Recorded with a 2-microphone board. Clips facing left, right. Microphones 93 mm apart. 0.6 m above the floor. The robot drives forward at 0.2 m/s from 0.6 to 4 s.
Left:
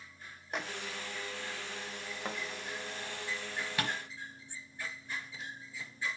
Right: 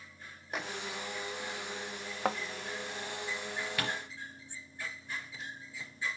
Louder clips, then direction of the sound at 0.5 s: Even; centre (ahead or behind).